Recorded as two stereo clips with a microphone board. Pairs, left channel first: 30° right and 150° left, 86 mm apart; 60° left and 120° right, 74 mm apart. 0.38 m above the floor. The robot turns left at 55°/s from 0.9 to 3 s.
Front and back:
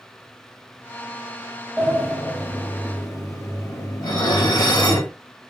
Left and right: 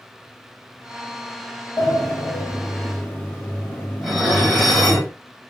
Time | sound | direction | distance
1.8 | a sliding door | 75° left | 1.2 m
4.0 | dishes clattering | 30° right | 1.3 m